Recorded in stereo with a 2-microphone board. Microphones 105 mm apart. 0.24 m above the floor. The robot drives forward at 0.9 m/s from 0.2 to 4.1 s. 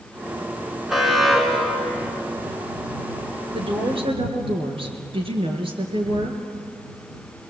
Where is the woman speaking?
70° right (ahead or behind), 3.5 m; by 6.4 s 65° right (ahead or behind), 3.5 m.